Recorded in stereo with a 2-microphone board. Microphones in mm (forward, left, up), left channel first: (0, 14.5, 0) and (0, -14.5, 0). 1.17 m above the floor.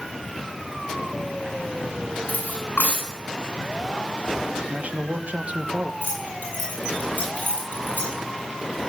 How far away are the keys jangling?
About 8.5 m.